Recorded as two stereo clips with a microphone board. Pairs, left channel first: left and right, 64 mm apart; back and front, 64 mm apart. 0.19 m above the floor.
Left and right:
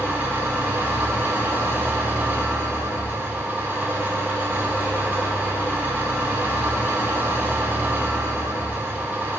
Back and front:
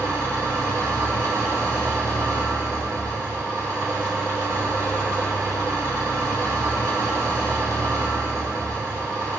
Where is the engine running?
35° right, 3.5 m.